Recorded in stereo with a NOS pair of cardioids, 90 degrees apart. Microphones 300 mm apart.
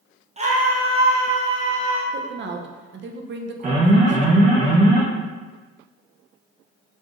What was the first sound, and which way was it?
A scream, 20° right.